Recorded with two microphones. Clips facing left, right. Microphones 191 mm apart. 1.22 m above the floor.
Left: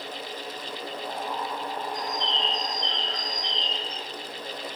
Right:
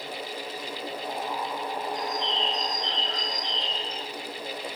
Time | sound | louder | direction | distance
1.9 | a bird | right 1 dB | 70° left (ahead or behind) | 1.6 m